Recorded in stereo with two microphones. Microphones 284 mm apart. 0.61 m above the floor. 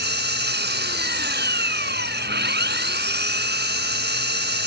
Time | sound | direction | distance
0.0 | an engine running | 40° right (ahead or behind) | ?